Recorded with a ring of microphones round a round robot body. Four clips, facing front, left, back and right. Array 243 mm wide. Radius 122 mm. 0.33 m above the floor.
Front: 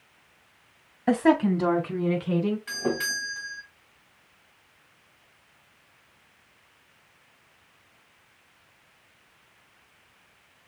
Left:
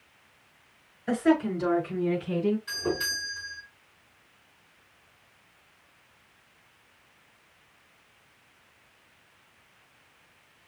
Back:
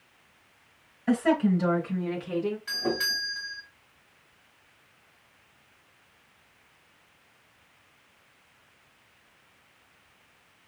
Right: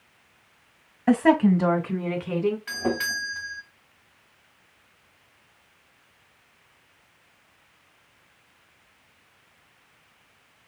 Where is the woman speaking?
55° right, 2 m.